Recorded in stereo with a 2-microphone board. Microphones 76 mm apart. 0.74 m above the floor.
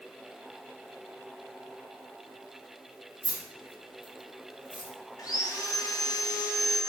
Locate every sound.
3.2 s keys jangling: 15° right (ahead or behind), 1.0 m
5.2 s sawing: 50° left (ahead or behind), 0.6 m